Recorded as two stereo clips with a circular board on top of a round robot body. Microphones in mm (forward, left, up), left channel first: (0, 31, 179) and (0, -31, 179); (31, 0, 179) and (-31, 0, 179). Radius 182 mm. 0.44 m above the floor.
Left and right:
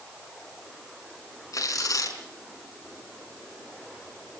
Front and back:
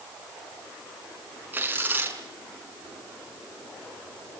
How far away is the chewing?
I don't hear chewing.